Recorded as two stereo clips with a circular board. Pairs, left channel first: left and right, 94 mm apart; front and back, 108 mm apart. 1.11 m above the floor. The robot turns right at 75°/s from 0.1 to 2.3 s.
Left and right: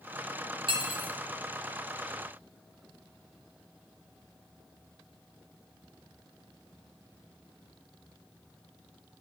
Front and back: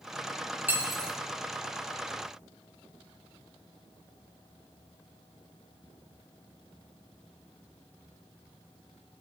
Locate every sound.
0.7 s cutlery clinking: 110° right, 0.7 m; by 1.1 s 75° right, 0.7 m